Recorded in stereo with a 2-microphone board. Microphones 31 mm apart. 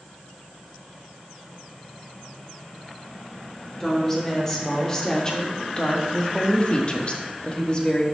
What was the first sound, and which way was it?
A woman speaking, 20° left (ahead or behind).